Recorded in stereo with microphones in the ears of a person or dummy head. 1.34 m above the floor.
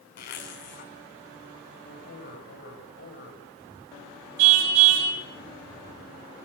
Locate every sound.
0.2 s a zipper: 55° left (ahead or behind), 4 m
1.9 s a man speaking: 50° left (ahead or behind), 9 m
4.4 s a car horn: 75° right (ahead or behind), 4.5 m